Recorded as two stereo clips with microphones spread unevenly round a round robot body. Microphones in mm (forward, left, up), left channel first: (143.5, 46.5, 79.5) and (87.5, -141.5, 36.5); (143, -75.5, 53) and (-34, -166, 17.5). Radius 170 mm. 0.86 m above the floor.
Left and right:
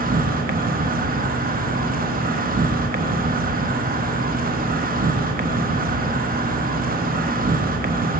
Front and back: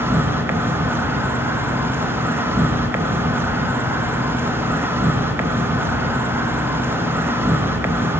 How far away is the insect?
About 0.7 m.